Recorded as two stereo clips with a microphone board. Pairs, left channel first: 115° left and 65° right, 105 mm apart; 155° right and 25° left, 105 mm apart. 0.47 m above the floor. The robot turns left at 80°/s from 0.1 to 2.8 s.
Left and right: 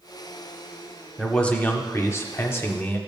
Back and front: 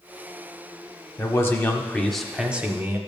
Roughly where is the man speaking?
Behind.